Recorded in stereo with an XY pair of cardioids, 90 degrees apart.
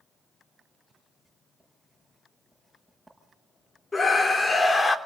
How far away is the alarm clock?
I don't hear an alarm clock.